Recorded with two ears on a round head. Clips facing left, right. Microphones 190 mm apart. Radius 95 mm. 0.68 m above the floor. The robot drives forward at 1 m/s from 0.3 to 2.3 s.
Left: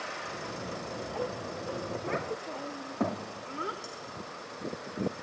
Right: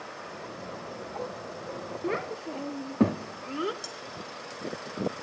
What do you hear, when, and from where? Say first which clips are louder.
2.0 s a child speaking: right 3 dB; 50° right (ahead or behind), 0.5 m; by 3.7 s 40° right (ahead or behind), 0.6 m
3.8 s cutlery clinking: right 1 dB; 75° right (ahead or behind), 2.5 m